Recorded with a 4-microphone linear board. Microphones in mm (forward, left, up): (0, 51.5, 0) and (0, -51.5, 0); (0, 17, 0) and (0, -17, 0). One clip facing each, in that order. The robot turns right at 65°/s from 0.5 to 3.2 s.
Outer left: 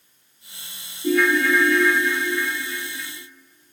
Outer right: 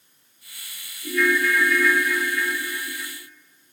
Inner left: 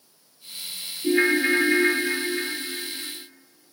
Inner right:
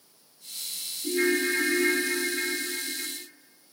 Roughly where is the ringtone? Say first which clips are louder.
Outer left 3 dB, inner left 5 dB; left.